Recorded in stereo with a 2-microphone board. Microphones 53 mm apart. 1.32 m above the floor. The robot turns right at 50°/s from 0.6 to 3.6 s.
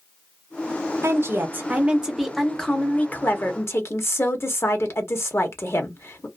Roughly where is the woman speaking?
Ahead right.